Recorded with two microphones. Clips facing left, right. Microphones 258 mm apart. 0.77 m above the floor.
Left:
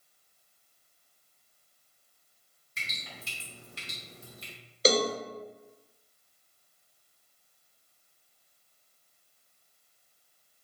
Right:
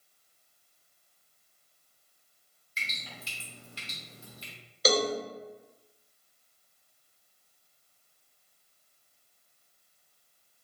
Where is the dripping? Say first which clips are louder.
Even; 55° left (ahead or behind), 3 m.